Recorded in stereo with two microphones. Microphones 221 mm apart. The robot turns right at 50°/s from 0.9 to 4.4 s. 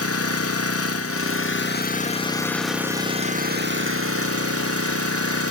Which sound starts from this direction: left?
An engine running, at 0.0 s.